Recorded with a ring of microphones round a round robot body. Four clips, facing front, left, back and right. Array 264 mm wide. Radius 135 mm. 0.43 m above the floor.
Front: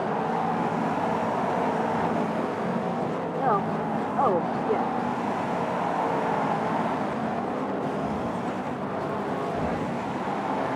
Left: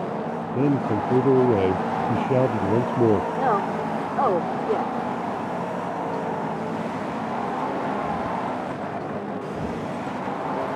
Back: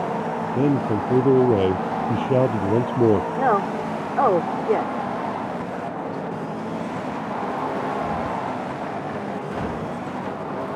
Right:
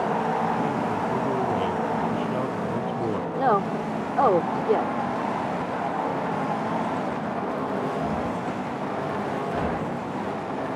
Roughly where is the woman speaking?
Behind right.